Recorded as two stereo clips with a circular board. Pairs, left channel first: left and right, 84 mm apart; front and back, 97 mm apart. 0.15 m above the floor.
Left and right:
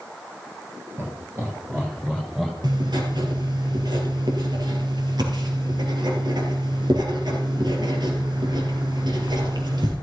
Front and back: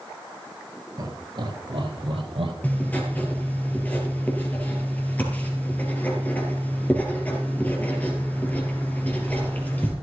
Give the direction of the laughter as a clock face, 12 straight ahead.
5 o'clock.